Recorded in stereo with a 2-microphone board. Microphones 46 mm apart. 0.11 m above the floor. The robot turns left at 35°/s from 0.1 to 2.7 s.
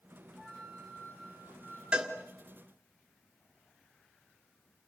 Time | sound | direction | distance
0.4 | a flute | 170° left | 4 m
1.9 | a cowbell | 20° right (ahead or behind) | 1.7 m